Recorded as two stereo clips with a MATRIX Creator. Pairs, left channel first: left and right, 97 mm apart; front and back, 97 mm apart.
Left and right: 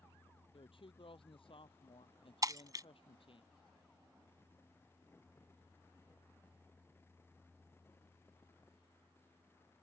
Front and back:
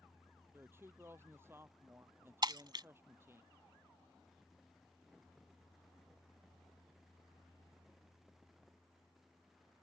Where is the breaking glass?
140° right.